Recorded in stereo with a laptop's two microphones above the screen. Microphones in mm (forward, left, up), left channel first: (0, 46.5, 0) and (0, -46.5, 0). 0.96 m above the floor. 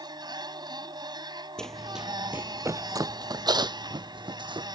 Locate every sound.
0.0 s a machine running: 50° right (ahead or behind)
1.6 s running footsteps: 10° left (ahead or behind); by 4.8 s 65° right (ahead or behind)